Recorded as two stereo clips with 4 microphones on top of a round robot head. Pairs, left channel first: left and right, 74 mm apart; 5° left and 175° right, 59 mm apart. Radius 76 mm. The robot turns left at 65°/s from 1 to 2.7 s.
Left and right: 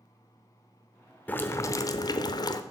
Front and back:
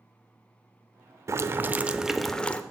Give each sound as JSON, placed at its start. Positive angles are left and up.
{"t": 1.3, "sound": "boiling", "azimuth_deg": 155, "distance_m": 0.8}